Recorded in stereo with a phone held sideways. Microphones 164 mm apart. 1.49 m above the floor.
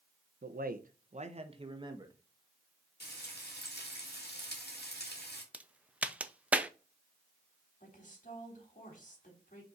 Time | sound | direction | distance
0.4 | a man speaking | 65° right (ahead or behind) | 0.9 m
3.0 | frying | 85° left | 2 m
5.5 | a crack | 10° right (ahead or behind) | 0.6 m
7.8 | a woman speaking | 50° left (ahead or behind) | 3.5 m